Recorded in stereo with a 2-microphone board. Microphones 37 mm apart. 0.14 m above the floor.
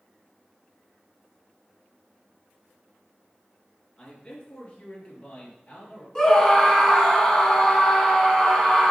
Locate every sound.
4.0 s a man speaking: 30° left (ahead or behind), 2.5 m; by 6.0 s 40° left (ahead or behind), 3.5 m
6.2 s a scream: 15° left (ahead or behind), 1.5 m